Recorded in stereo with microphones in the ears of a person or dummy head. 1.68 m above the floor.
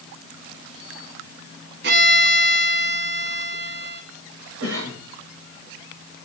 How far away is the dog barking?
I don't hear a dog barking.